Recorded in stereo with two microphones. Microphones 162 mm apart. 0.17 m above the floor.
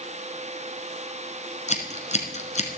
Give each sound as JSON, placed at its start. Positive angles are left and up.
{"t": 1.7, "sound": "scissors", "side_deg": 50, "distance_m": 1.7}